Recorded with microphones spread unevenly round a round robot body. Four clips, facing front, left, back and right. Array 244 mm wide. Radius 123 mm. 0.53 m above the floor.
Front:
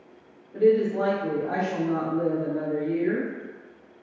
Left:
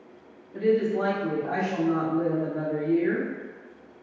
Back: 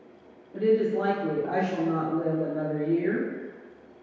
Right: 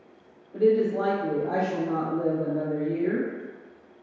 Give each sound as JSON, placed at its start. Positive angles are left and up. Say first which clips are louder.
{"t": 0.5, "sound": "a woman speaking", "louder": "right 2 dB, front 3 dB", "azimuth_deg": -55, "distance_m": 1.6}